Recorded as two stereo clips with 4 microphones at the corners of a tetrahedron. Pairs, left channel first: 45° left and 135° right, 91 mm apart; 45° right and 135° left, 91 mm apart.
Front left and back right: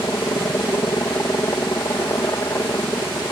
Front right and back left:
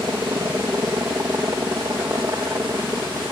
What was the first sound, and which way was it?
A helicopter, 90° left.